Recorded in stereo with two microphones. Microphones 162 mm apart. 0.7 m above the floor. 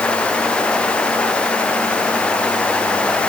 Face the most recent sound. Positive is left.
No sound to turn to.